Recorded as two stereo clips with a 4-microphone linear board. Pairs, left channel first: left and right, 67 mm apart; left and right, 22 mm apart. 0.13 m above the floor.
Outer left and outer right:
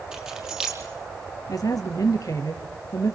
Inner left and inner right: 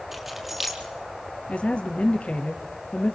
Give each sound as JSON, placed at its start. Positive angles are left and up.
{"t": 0.1, "sound": "keys jangling", "side_deg": -10, "distance_m": 4.0}
{"t": 1.5, "sound": "a woman speaking", "side_deg": 60, "distance_m": 3.5}